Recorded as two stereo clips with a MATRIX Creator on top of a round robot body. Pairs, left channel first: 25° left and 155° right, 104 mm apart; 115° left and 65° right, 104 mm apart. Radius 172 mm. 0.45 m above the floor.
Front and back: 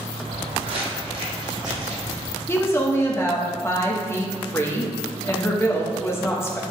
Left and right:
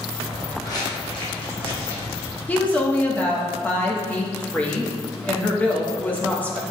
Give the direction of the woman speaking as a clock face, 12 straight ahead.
10 o'clock.